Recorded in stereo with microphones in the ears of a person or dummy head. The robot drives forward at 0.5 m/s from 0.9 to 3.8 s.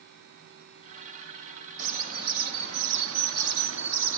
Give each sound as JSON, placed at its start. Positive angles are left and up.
{"t": 1.8, "sound": "a bird", "side_deg": -40, "distance_m": 1.2}